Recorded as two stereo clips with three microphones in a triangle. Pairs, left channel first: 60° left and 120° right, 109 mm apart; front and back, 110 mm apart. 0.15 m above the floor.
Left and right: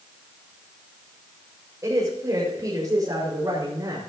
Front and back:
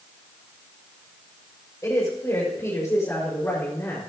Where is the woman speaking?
60° right, 6.5 m; by 4.0 s 65° right, 5.5 m.